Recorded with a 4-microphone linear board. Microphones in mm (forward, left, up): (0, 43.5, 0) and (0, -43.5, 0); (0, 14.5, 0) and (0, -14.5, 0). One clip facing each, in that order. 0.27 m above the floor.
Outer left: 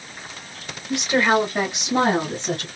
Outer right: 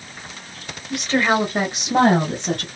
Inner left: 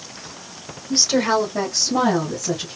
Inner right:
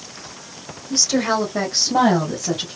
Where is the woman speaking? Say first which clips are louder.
Even, inner left 1 dB; 25° left (ahead or behind), 1.1 m; by 2.7 s 65° right (ahead or behind), 2.5 m.